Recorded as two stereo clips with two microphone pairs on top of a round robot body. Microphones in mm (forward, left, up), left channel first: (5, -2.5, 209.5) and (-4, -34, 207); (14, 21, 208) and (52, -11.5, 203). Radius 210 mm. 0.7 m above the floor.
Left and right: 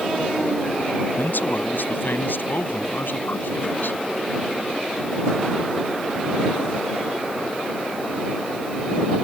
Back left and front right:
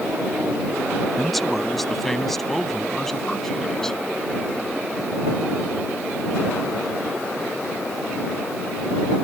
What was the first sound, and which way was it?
A man speaking, 50° left.